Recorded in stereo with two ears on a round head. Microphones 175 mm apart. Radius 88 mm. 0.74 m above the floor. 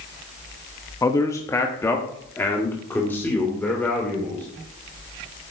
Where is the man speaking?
15° left (ahead or behind), 0.8 m; by 4.5 s 10° left (ahead or behind), 3 m.